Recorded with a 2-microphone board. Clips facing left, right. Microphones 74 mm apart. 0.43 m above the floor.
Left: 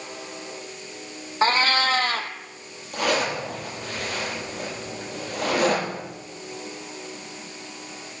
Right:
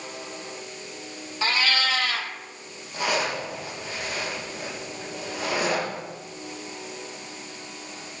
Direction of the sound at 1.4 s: 40° left (ahead or behind).